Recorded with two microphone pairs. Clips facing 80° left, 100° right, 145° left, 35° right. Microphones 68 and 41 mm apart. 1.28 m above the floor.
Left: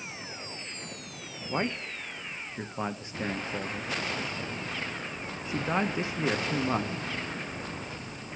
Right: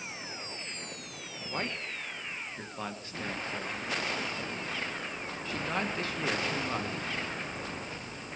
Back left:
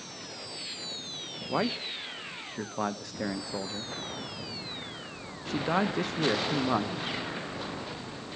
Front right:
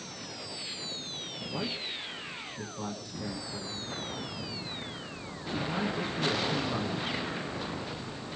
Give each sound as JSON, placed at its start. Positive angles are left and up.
{"t": 1.5, "sound": "a man speaking", "azimuth_deg": 155, "distance_m": 1.0}